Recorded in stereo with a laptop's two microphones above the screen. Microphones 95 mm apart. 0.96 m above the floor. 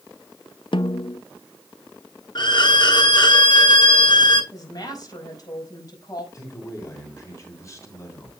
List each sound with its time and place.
0.7 s a snare drum: 60° left (ahead or behind), 0.6 m
2.4 s a violin: 50° left (ahead or behind), 1.4 m
4.5 s a woman speaking: 45° left (ahead or behind), 5 m
6.3 s a man speaking: 35° left (ahead or behind), 3 m